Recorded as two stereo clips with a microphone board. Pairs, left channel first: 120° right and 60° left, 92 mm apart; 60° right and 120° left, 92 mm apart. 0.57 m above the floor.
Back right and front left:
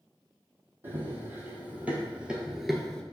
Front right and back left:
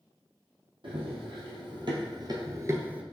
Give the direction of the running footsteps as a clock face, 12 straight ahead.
8 o'clock.